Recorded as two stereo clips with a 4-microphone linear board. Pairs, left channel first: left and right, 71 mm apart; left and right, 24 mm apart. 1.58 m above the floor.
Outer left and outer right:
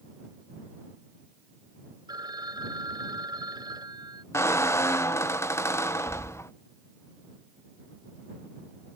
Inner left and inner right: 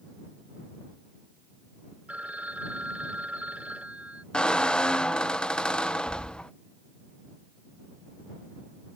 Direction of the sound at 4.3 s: 40° left (ahead or behind).